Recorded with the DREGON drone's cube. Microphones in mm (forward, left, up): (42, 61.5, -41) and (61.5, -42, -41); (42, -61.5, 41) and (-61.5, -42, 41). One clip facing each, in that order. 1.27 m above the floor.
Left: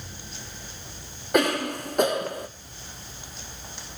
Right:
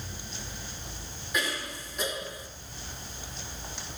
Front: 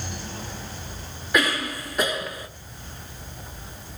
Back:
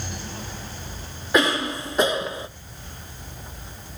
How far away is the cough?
About 1.1 m.